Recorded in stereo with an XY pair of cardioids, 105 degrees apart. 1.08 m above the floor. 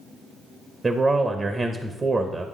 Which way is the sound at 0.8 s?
25° right.